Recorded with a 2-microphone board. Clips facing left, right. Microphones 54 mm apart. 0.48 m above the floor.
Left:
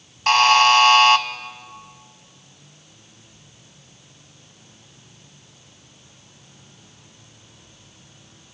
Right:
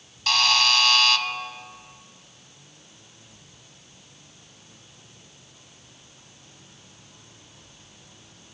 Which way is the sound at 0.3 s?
40° left (ahead or behind).